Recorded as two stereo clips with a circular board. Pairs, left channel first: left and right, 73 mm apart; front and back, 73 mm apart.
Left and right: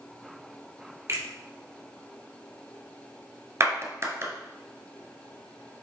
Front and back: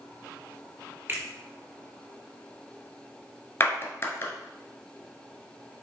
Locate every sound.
1.1 s a finger snap: 125° right, 2.5 m
3.6 s a clap: 50° right, 1.6 m